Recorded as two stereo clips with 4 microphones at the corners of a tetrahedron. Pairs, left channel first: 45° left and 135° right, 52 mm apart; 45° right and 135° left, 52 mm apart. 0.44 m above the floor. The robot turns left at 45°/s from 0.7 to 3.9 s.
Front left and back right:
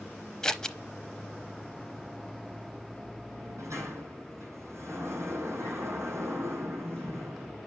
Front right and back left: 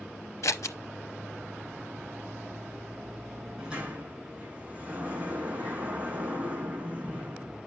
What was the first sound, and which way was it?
Scissors, 30° right.